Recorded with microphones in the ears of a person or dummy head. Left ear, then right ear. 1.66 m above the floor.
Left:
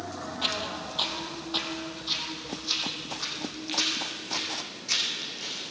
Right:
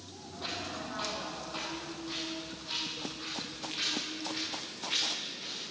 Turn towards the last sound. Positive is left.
turn(degrees=35)  # may be behind; listen again after turning